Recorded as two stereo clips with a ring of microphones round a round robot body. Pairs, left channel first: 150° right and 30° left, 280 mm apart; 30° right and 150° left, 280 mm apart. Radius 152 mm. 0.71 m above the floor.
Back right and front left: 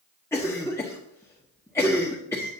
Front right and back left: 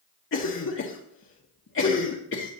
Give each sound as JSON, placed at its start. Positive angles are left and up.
{"t": 0.3, "sound": "a cough", "azimuth_deg": -70, "distance_m": 1.3}